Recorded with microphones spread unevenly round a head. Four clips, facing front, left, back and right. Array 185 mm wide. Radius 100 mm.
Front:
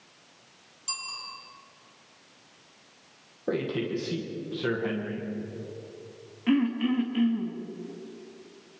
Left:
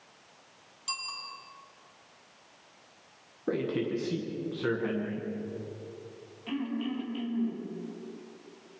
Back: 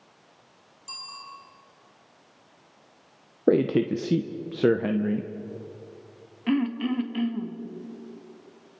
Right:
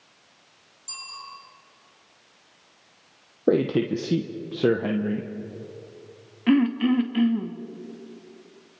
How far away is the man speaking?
About 1.0 m.